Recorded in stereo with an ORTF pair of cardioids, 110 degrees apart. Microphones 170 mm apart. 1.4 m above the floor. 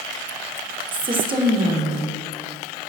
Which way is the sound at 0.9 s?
30° right.